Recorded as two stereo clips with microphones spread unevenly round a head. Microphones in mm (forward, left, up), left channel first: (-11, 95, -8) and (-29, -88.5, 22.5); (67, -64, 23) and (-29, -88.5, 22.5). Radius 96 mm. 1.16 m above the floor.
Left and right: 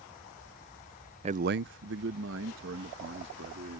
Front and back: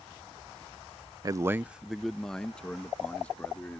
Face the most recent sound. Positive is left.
turn(degrees=-60)